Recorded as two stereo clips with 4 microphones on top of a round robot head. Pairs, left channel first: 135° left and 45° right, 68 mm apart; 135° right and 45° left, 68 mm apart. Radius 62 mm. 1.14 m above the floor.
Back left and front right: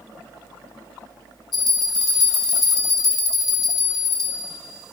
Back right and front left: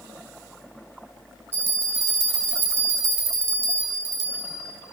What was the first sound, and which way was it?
A bell, 105° left.